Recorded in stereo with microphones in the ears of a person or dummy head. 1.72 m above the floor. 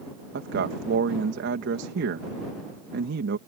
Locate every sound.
0.3 s a man speaking: 65° right (ahead or behind)